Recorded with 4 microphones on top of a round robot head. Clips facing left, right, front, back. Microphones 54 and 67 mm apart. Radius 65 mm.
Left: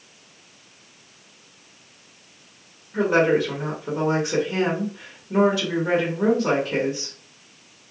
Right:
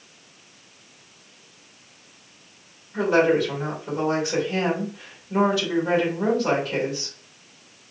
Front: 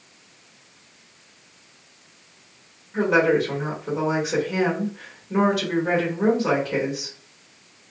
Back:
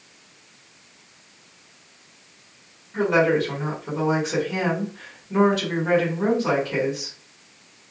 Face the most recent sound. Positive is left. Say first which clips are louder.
# even, even
turn(degrees=75)